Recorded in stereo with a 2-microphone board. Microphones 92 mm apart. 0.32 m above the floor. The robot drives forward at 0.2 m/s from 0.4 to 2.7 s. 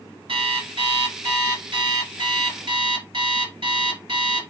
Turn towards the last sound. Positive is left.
turn(degrees=-50)  # may be behind; listen again after turning